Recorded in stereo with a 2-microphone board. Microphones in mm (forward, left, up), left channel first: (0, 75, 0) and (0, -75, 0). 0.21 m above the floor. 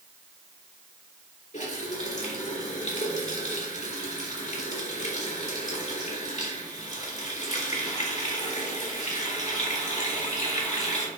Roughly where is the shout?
No shout in this recording.